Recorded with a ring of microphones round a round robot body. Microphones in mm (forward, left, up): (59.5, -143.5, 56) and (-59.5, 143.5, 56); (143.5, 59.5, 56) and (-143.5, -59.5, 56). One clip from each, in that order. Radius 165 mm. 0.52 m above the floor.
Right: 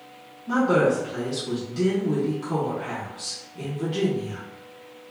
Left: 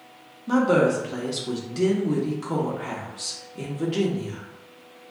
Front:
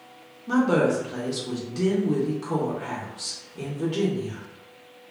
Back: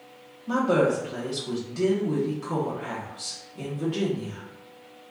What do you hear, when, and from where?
0.5 s a woman speaking: 90° left, 0.8 m